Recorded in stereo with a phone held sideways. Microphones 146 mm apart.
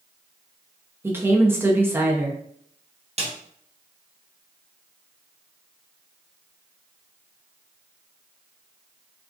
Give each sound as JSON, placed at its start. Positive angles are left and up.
{"t": 1.0, "sound": "a woman speaking", "side_deg": -15, "distance_m": 0.5}
{"t": 3.2, "sound": "a snare drum", "side_deg": -45, "distance_m": 0.7}